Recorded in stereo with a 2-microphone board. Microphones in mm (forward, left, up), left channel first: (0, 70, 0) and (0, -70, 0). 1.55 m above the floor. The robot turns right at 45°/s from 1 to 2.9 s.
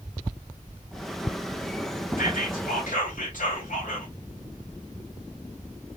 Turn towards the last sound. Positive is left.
turn(degrees=110)